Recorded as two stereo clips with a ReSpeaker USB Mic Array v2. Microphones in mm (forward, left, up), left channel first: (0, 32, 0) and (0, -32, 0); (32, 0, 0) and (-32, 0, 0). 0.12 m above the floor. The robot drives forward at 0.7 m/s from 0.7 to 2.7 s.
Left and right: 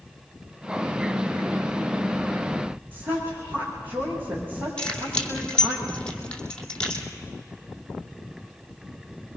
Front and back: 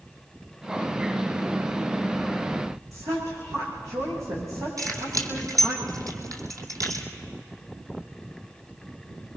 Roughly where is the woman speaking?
Behind right.